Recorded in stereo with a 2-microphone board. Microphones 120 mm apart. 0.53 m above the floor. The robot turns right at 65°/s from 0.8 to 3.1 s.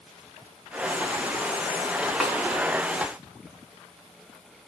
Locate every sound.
2.2 s a snare drum: centre (ahead or behind), 3 m; by 2.4 s 10° left (ahead or behind), 3 m